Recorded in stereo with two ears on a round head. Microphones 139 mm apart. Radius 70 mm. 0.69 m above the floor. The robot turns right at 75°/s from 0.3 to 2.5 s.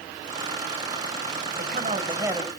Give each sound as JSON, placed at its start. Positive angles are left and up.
{"t": 1.6, "sound": "a man speaking", "azimuth_deg": -70, "distance_m": 3.5}